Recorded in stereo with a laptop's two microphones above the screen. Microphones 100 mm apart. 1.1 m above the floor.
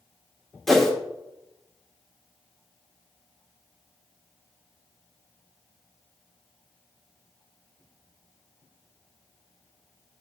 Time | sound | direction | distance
0.7 | a whoosh | 5° left (ahead or behind) | 1.5 m